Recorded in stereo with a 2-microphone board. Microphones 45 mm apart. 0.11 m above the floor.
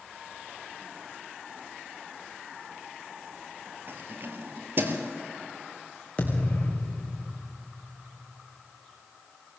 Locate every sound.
3.9 s keys jangling: 50° right (ahead or behind), 2 m
6.2 s a thud: 30° left (ahead or behind), 3 m